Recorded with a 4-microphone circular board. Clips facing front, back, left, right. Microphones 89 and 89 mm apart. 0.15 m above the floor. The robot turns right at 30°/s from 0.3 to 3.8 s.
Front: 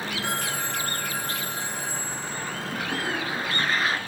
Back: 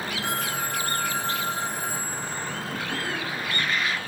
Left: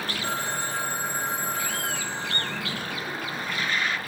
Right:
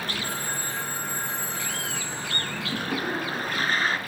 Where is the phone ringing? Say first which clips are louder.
Back 1 dB, left 3 dB; 90° left, 6 m; by 2.6 s 160° left, 6 m.